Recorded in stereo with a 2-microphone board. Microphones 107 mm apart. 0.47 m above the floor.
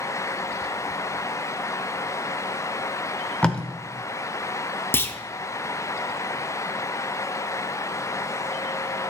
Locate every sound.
3.4 s tape being pulled: 10° left (ahead or behind), 1.0 m
4.9 s a clunk: 20° left (ahead or behind), 0.7 m